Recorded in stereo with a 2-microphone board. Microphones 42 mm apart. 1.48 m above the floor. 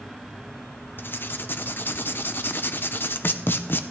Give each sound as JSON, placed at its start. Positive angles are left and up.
{"t": 1.0, "sound": "writing", "side_deg": 55, "distance_m": 0.6}